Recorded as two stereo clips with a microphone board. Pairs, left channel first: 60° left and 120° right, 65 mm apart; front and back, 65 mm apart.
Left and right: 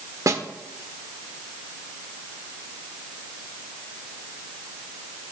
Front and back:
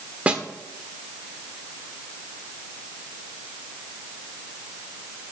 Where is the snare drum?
110° right, 1.2 m.